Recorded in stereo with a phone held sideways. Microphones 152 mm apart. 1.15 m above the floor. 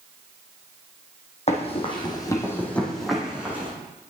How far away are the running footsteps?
About 1.9 m.